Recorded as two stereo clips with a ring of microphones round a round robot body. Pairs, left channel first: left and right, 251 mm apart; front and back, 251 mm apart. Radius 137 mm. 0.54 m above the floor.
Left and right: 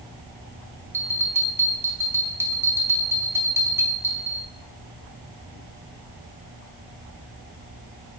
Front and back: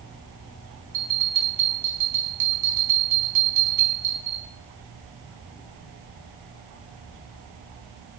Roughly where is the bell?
Behind.